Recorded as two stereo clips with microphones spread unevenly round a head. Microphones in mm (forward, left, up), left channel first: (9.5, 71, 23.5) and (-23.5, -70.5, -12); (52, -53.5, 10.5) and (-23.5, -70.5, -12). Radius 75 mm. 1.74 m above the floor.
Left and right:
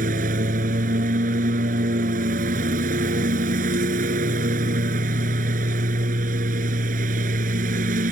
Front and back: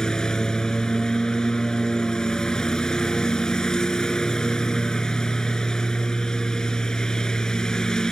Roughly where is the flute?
No flute in this recording.